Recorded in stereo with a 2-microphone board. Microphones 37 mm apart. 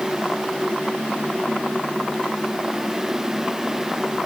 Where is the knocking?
I don't hear knocking.